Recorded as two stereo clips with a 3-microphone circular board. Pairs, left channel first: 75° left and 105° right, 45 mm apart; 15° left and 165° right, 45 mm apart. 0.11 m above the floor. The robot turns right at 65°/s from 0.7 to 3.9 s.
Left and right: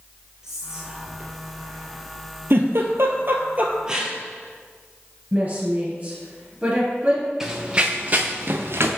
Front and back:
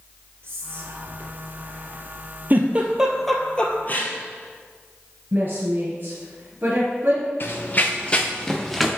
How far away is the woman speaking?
About 2 m.